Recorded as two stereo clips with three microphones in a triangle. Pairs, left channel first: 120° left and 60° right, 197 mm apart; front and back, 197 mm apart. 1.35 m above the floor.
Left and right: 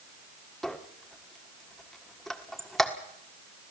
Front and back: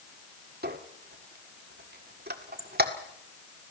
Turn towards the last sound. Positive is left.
turn(degrees=-150)